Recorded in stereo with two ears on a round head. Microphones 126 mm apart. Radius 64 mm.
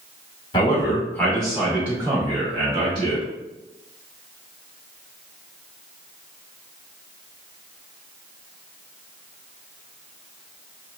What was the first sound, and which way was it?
A man speaking, 35° left (ahead or behind).